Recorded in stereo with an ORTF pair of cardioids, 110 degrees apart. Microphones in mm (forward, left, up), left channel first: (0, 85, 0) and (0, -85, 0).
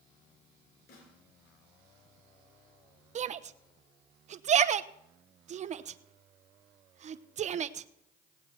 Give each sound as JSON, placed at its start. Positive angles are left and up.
{"t": 0.9, "sound": "a snare drum", "azimuth_deg": 70, "distance_m": 5.0}
{"t": 3.1, "sound": "a shout", "azimuth_deg": -45, "distance_m": 0.8}